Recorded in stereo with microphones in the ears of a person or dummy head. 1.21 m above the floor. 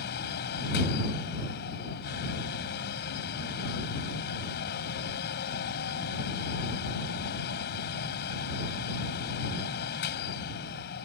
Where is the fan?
60° left (ahead or behind).